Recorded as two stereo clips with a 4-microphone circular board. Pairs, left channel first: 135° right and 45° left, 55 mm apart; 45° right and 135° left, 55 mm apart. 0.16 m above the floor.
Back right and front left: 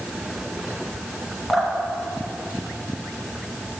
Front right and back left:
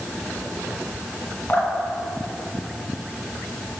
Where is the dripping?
55° right, 1.7 m.